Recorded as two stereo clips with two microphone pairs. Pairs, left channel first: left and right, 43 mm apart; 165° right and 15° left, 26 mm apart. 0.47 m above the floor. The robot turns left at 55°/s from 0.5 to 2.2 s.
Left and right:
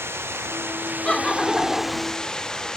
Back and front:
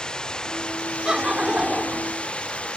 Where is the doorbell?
No doorbell in this recording.